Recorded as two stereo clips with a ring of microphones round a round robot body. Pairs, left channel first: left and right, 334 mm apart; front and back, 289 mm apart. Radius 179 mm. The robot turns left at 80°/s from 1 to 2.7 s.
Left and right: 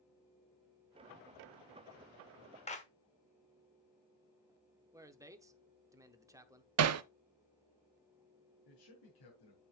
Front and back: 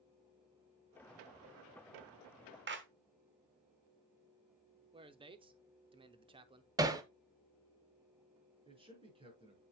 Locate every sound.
2.7 s a clap: 155° left, 1.5 m; by 2.9 s 150° left, 1.5 m
4.9 s a man speaking: 150° right, 0.8 m
6.8 s hammering: 105° right, 0.6 m
8.7 s a man speaking: 110° left, 5.5 m